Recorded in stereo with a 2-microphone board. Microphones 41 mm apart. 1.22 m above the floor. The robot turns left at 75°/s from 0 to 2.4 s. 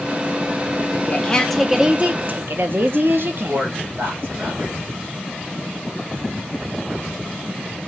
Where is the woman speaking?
50° left, 0.9 m; by 3.7 s 60° right, 0.9 m.